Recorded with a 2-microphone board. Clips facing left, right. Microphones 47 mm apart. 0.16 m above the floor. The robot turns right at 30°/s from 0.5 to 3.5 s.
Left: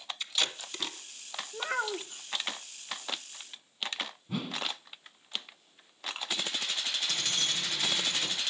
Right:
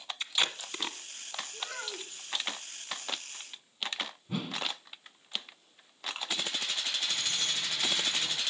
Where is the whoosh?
Centre (ahead or behind), 1.2 m.